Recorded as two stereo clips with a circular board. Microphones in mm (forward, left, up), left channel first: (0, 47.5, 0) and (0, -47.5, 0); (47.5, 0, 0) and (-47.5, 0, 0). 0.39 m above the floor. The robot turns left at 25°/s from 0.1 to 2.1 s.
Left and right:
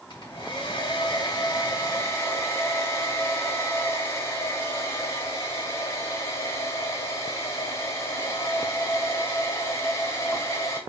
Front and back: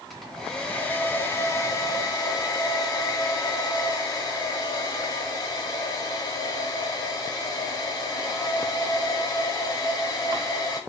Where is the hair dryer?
90° left, 2 m; by 10.8 s 40° left, 2 m.